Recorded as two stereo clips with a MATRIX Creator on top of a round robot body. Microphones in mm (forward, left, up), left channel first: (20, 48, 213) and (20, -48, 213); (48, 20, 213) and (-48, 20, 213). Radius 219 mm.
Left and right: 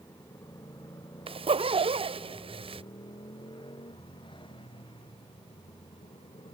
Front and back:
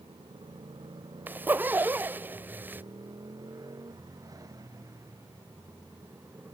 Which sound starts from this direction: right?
A zipper, at 1.3 s.